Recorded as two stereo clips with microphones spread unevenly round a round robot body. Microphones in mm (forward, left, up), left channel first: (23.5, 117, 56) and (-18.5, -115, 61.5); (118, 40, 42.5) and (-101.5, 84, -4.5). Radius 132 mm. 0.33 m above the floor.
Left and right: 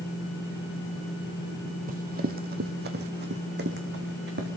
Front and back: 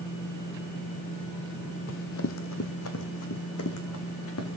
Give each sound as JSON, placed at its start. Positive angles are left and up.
{"t": 1.9, "sound": "running footsteps", "azimuth_deg": -45, "distance_m": 0.8}